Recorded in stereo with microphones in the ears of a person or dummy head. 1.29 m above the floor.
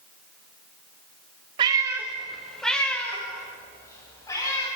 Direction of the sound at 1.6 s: 30° right (ahead or behind).